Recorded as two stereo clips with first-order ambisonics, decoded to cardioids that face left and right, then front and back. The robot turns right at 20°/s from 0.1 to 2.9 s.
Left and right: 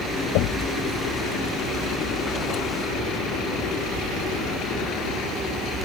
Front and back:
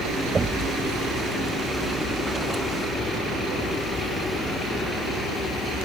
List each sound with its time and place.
0.3 s knocking: 105° left; by 0.7 s 115° left